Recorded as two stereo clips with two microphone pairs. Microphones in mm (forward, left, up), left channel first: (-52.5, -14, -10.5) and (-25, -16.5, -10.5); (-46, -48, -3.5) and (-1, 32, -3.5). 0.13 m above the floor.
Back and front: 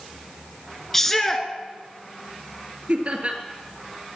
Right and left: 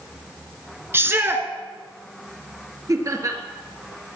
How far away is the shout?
About 1.4 m.